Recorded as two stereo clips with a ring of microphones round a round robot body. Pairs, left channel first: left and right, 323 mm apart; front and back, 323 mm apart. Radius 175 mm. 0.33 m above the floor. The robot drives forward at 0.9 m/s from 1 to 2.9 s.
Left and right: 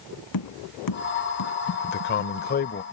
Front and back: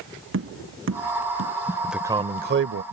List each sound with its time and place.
0.3 s tapping: 130° left
1.8 s a man speaking: 85° left; by 2.8 s 150° left